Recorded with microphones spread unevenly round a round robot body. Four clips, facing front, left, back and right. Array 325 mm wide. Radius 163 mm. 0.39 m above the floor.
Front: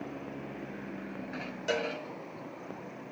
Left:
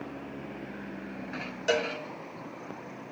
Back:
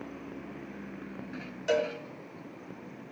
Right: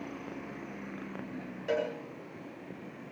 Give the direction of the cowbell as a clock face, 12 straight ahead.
8 o'clock.